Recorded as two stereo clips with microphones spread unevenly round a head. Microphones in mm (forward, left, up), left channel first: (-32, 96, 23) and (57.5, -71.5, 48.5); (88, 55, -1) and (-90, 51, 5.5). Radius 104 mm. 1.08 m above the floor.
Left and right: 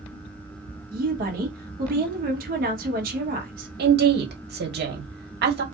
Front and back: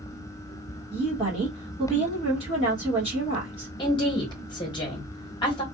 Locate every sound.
0.9 s a woman speaking: 110° right, 0.9 m
3.8 s a woman speaking: 55° right, 1.0 m